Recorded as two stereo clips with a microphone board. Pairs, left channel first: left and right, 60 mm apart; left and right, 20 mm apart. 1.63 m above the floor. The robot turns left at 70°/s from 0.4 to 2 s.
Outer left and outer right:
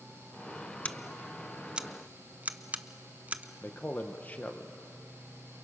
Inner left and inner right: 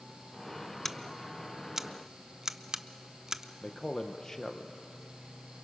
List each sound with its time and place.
0.8 s scissors: 20° left (ahead or behind), 0.7 m; by 3.5 s 25° right (ahead or behind), 0.7 m
3.6 s a man speaking: 25° left (ahead or behind), 1.0 m